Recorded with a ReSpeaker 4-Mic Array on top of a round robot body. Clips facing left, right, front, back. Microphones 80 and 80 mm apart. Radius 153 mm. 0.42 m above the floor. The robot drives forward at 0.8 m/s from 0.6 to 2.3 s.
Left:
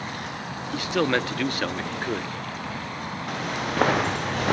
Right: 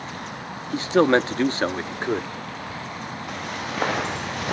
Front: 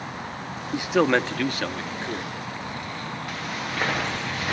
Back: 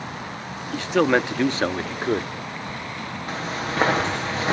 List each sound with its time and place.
0.7 s a man speaking: 60° right, 0.9 m; by 2.3 s 160° right, 1.3 m
3.3 s footsteps: 120° left, 4.5 m